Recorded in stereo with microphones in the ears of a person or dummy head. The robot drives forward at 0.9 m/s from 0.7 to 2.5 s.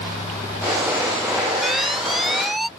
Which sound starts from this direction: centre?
An alarm, at 1.6 s.